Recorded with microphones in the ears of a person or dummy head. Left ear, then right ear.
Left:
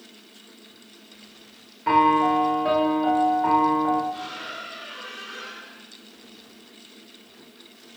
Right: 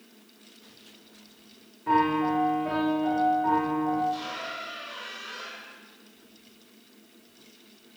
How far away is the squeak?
About 4 m.